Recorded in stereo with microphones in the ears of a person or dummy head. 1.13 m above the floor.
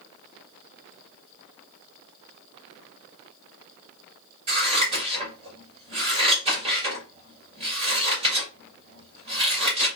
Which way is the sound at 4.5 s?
30° right (ahead or behind).